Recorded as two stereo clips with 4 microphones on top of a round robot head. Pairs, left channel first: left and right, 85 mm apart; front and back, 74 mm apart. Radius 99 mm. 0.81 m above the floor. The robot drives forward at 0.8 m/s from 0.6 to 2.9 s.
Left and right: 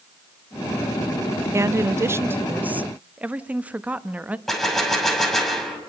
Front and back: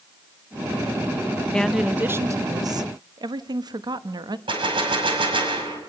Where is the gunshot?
Straight behind, 6 m.